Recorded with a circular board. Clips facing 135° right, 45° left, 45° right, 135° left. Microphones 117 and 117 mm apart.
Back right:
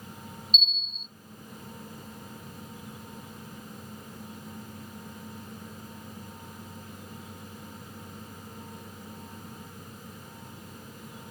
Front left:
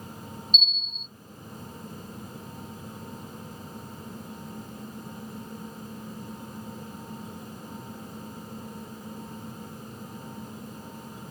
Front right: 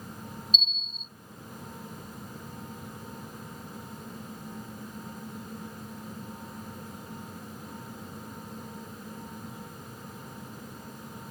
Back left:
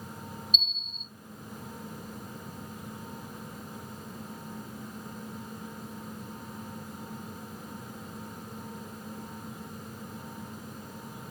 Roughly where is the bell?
Behind left.